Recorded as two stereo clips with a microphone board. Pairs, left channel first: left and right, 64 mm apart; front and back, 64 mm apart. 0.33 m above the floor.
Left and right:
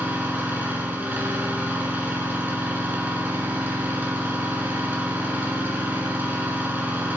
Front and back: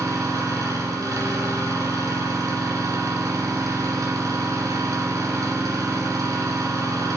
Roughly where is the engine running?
Behind right.